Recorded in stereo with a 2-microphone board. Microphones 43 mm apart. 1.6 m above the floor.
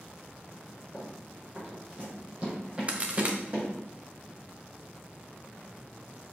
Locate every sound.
0.9 s running footsteps: 15° right (ahead or behind), 3 m; by 3.7 s 35° right (ahead or behind), 5 m
2.9 s a crack: 30° right (ahead or behind), 0.8 m